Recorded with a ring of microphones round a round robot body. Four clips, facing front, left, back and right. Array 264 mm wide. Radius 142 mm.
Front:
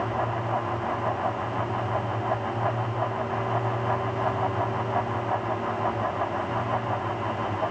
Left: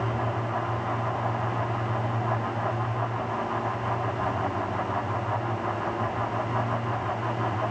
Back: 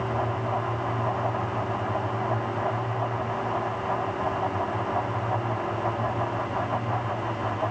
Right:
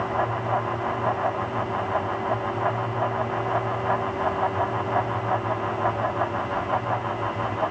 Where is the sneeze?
No sneeze in this recording.